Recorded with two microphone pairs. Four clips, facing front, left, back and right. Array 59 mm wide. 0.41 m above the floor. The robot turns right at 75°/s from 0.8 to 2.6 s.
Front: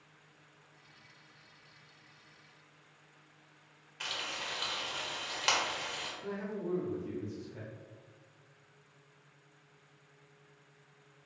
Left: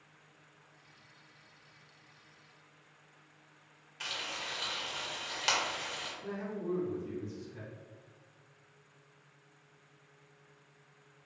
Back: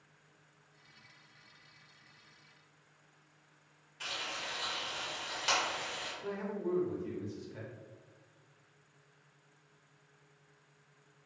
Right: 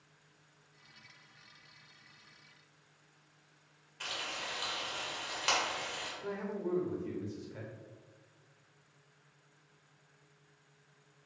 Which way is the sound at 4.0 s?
10° left.